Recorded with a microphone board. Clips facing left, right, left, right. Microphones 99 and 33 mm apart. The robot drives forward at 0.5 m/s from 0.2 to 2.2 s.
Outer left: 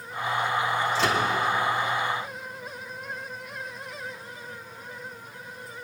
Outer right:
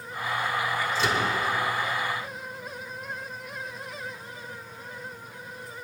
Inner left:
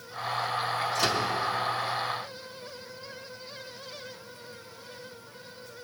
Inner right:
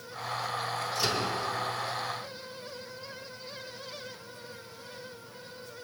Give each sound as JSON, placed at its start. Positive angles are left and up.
{"t": 0.9, "sound": "a microwave", "side_deg": 80, "distance_m": 2.5}